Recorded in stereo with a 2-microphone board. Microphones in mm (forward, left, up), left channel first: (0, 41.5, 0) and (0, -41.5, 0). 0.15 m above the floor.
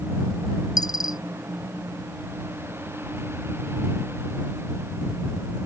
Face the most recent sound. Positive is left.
turn(degrees=50)  # may be behind; listen again after turning